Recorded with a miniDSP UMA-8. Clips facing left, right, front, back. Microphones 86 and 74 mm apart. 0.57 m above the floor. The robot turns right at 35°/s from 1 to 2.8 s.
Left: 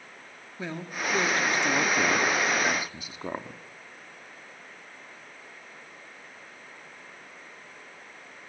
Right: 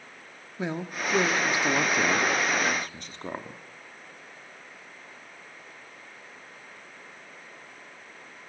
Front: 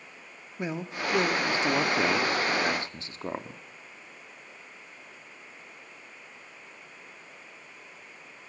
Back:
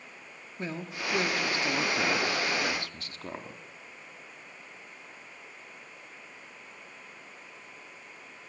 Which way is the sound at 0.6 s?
45° right.